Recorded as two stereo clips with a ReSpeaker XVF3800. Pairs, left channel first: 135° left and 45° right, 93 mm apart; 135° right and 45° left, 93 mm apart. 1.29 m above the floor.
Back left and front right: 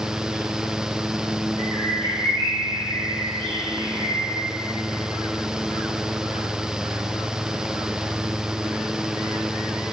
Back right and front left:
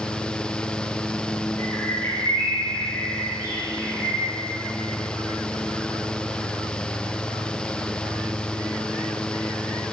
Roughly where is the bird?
Right.